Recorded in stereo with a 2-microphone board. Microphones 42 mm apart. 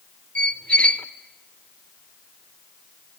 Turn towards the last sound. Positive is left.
turn(degrees=30)  # may be behind; listen again after turning